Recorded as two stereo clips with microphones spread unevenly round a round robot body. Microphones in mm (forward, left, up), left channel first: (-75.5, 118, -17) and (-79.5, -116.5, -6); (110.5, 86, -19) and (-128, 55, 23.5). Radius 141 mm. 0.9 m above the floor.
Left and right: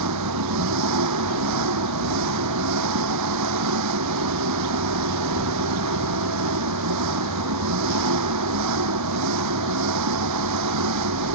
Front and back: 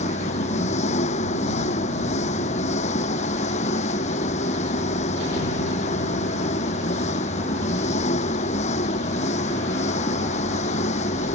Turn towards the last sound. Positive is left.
turn(degrees=-60)